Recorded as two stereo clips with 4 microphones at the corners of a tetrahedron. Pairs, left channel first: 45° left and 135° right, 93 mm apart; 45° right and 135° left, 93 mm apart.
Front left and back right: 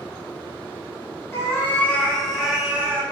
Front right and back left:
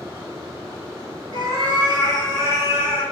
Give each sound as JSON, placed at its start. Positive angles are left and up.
{"t": 1.3, "sound": "a cat meowing", "azimuth_deg": 105, "distance_m": 1.1}